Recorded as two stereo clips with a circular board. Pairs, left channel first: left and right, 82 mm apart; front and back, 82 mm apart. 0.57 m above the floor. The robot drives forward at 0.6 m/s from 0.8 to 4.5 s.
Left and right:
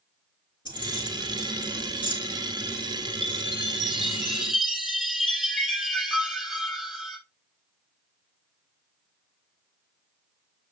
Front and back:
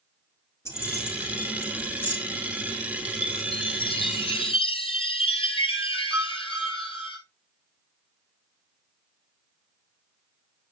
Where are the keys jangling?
60° left, 5 m; by 2.1 s 70° left, 5 m.